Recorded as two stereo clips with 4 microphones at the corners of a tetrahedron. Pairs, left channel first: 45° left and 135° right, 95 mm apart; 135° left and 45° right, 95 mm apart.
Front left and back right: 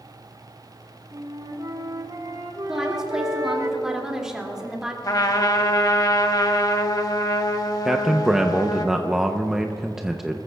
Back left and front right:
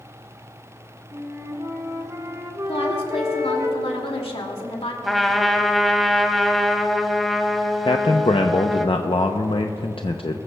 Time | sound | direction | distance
1.1 | a flute | 95° right | 1.6 m
2.7 | a woman speaking | 140° left | 2 m
5.0 | a trumpet | 45° left | 0.9 m
7.8 | a man speaking | 140° left | 0.6 m